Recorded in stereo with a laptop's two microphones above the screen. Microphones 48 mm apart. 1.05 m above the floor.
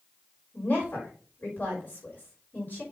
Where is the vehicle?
No vehicle in this recording.